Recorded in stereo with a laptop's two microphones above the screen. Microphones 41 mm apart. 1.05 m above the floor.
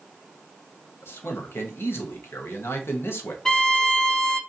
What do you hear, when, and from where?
1.0 s a man speaking: 75° left (ahead or behind), 1.1 m
3.5 s a violin: 15° left (ahead or behind), 0.6 m